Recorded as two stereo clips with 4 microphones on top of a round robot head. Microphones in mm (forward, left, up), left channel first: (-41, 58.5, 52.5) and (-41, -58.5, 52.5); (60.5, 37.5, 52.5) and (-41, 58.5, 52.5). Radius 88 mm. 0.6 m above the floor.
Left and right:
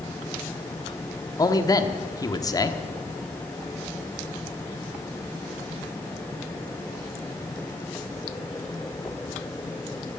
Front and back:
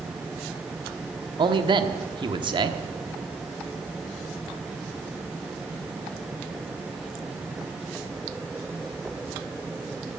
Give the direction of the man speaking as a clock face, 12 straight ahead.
7 o'clock.